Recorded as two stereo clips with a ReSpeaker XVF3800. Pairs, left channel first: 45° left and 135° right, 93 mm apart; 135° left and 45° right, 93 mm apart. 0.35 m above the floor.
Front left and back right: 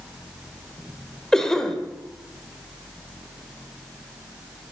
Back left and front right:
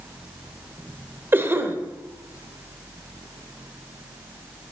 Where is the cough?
30° right, 1.1 m.